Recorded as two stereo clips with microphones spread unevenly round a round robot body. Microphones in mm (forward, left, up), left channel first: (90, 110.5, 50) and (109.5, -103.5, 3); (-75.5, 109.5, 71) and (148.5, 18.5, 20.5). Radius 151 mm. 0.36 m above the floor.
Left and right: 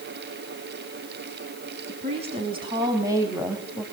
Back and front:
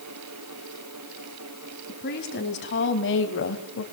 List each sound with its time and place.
1.9 s a woman speaking: 145° right, 3.5 m; by 3.8 s 165° right, 2 m